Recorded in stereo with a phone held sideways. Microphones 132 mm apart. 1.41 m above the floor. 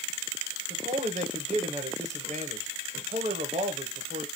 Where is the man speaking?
60° right (ahead or behind), 1.0 m.